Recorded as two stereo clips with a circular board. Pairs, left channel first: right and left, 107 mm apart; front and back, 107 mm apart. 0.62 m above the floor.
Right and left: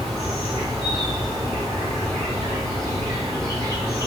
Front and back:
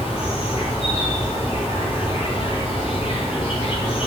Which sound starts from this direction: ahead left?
An insect, at 0.0 s.